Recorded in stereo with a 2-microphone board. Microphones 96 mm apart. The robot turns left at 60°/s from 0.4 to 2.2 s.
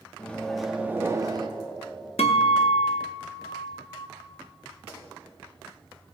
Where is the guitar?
85° left, 0.7 m.